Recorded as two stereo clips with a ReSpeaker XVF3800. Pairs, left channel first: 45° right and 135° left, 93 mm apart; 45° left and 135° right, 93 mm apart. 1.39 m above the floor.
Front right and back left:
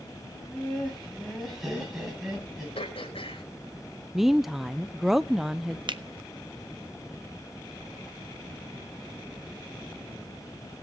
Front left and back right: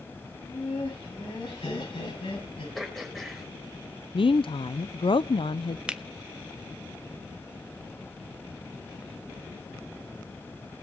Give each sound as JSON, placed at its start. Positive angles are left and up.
{"t": 0.3, "sound": "laughter", "azimuth_deg": 45, "distance_m": 8.5}
{"t": 2.8, "sound": "throat clearing", "azimuth_deg": -45, "distance_m": 4.0}
{"t": 4.1, "sound": "a woman speaking", "azimuth_deg": 50, "distance_m": 0.6}
{"t": 5.9, "sound": "a finger snap", "azimuth_deg": 150, "distance_m": 0.8}